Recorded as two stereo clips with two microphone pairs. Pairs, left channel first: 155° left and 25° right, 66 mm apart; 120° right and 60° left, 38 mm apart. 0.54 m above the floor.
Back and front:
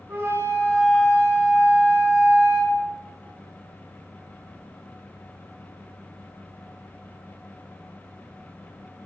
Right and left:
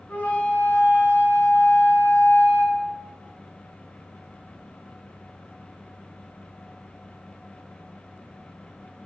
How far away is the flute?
About 2.5 m.